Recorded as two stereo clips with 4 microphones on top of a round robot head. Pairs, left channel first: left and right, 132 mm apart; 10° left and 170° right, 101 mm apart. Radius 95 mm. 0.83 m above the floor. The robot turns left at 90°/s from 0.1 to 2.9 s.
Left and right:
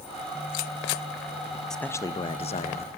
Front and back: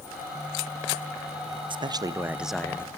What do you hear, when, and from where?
1.7 s a man speaking: 175° left, 0.6 m; by 2.9 s 70° left, 0.6 m